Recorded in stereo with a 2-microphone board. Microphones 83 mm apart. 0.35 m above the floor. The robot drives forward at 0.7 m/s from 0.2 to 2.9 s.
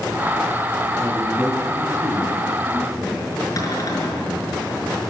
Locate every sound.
1.0 s a man speaking: 5° left (ahead or behind), 4.5 m
3.6 s a cupboard door: 45° left (ahead or behind), 5 m